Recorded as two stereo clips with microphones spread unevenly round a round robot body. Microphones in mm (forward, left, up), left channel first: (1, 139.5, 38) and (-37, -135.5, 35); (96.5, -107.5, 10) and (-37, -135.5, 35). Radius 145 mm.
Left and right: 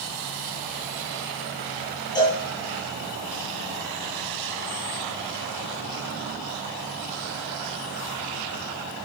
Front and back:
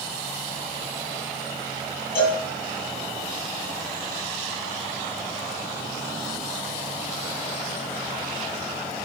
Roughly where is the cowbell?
Ahead.